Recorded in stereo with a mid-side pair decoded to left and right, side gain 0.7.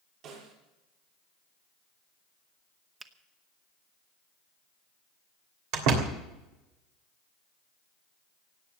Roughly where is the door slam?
Right.